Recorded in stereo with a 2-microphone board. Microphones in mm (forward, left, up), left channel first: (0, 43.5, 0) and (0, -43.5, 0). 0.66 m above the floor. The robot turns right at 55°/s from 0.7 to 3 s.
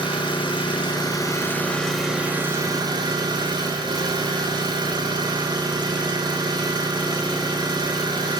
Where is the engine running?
110° left, 2.5 m; by 8.4 s 125° right, 2.5 m.